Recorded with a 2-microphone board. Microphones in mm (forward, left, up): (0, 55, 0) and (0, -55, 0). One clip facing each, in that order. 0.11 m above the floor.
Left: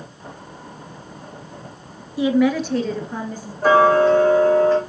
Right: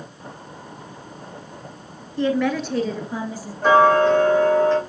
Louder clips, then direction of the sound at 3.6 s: Left 1 dB; 5° left (ahead or behind).